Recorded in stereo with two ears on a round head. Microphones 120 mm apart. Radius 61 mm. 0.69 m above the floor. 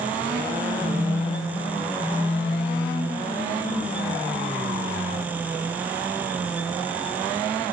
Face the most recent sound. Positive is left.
turn(degrees=65)  # may be behind; listen again after turning